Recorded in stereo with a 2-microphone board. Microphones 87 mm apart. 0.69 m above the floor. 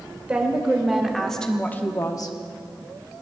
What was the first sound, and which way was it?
A woman speaking, 15° right (ahead or behind).